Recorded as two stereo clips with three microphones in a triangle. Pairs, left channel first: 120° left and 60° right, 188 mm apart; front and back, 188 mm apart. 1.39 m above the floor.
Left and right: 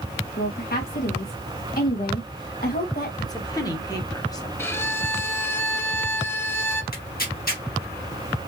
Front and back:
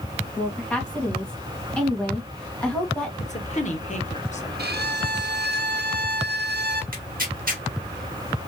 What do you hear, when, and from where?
0.4 s a woman speaking: 85° left, 2.0 m
3.2 s a woman speaking: 50° left, 1.2 m
4.6 s a violin: 165° right, 0.6 m
6.9 s tearing paper: 150° left, 1.3 m